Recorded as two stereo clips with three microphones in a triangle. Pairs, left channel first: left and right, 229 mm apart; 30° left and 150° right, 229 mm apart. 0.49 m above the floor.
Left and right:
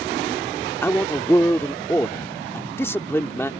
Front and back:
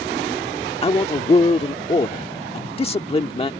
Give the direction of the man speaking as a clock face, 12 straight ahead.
11 o'clock.